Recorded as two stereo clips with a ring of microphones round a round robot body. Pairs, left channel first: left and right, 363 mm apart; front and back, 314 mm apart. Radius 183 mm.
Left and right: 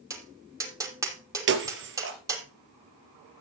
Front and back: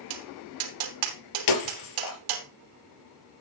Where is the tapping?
170° right, 3 m.